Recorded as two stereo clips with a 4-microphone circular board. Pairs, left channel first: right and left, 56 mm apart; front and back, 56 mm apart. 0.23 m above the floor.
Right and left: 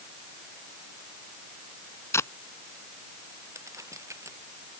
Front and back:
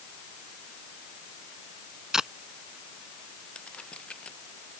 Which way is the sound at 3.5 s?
70° left.